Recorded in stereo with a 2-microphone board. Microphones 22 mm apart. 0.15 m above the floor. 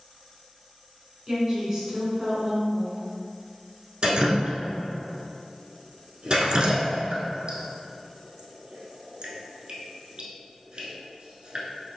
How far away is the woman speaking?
About 1.7 m.